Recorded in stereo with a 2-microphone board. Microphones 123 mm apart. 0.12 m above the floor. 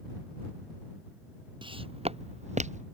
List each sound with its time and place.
1.6 s footsteps: 45° right (ahead or behind); by 2.9 s 80° right